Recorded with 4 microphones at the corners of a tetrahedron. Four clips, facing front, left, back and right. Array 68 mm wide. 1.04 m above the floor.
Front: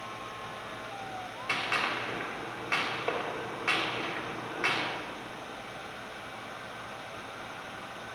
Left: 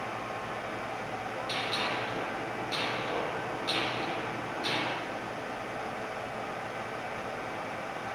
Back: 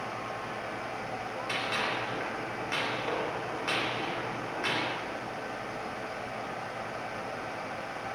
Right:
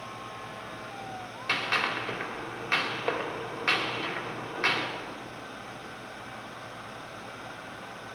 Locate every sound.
1.5 s a gunshot: 75° right, 3 m